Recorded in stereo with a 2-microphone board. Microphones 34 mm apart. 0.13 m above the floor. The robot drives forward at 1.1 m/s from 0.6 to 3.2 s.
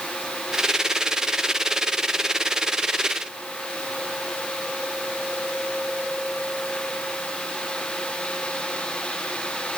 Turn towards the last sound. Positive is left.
No sound to turn to.